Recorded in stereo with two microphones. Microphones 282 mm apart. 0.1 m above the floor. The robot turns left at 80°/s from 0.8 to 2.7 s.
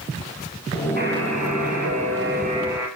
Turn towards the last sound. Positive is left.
turn(degrees=-170)